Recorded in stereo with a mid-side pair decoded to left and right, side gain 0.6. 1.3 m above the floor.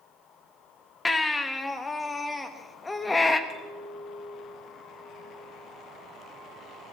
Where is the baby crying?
20° left, 1.2 m.